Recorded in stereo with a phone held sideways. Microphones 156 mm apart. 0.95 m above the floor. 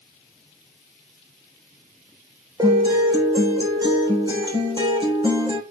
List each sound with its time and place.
2.6 s a guitar: 30° right (ahead or behind), 3 m